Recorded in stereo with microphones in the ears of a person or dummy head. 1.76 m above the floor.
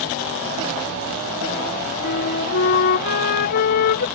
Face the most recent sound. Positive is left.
turn(degrees=60)  # may be behind; listen again after turning